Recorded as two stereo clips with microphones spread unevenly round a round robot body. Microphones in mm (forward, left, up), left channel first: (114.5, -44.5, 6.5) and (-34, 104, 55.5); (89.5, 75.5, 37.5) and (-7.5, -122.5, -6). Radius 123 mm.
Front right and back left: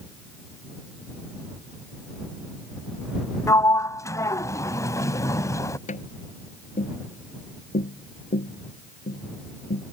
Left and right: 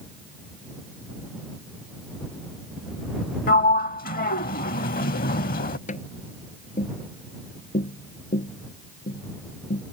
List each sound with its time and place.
3.5 s a sliding door: 40° left
5.9 s tapping: 10° left